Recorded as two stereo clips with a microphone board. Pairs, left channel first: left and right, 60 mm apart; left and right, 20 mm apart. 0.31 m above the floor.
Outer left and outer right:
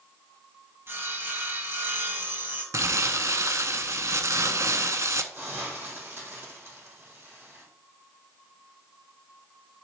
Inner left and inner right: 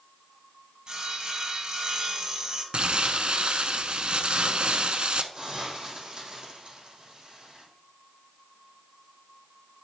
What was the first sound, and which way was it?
Sawing, 40° right (ahead or behind).